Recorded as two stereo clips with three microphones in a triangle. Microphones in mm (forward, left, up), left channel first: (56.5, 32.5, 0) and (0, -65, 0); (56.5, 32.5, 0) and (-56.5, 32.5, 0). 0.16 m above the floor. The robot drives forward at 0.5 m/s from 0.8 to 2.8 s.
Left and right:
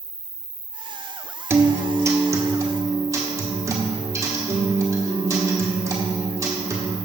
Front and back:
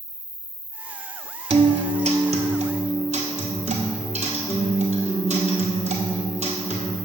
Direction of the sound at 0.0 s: 20° right.